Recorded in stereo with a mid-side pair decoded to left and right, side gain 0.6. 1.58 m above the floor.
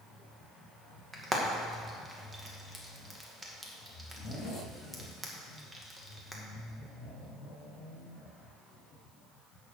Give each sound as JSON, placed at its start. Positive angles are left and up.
{"t": 1.1, "sound": "frying", "azimuth_deg": -15, "distance_m": 2.0}